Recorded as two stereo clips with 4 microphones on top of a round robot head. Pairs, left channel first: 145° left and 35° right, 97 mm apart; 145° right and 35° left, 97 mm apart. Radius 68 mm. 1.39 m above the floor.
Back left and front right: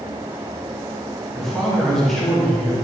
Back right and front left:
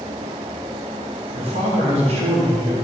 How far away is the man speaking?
About 2.5 m.